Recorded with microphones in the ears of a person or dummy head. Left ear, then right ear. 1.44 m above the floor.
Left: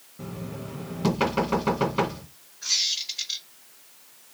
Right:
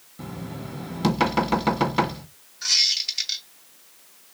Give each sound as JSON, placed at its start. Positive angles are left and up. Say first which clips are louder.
{"t": 0.2, "sound": "knocking", "louder": "right 1 dB", "side_deg": -30, "distance_m": 1.7}
{"t": 2.6, "sound": "a squeak", "louder": "right 5 dB", "side_deg": -40, "distance_m": 1.4}